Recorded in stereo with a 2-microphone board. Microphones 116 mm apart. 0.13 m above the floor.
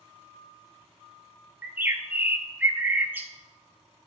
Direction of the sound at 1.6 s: 15° right (ahead or behind).